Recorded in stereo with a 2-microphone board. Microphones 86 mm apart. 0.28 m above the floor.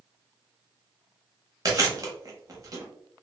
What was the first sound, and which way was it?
Chewing, 40° right (ahead or behind).